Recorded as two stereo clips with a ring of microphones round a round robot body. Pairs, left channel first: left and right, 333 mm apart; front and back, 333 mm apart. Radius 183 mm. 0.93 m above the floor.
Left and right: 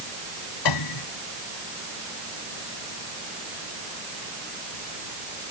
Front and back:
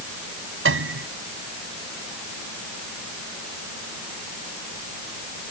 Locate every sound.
0.7 s a piano: 125° left